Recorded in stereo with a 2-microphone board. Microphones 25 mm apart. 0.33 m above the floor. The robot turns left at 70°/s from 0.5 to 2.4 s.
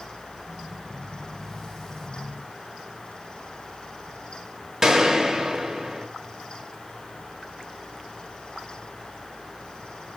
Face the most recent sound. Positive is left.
turn(degrees=-25)  # may be behind; listen again after turning